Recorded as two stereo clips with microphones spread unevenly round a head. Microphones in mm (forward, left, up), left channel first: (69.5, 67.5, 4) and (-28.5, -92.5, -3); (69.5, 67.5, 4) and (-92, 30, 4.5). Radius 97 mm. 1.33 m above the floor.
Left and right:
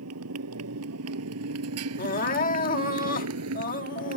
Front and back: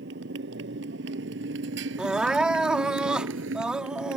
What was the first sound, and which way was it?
A motorcycle, 130° right.